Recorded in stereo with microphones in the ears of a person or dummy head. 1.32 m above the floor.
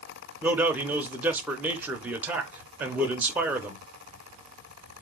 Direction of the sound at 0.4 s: 5° right (ahead or behind).